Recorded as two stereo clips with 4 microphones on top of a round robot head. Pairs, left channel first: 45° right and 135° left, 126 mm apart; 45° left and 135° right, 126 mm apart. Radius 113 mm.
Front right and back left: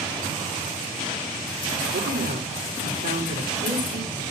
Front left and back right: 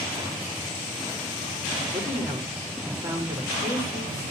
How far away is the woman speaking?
About 4.5 m.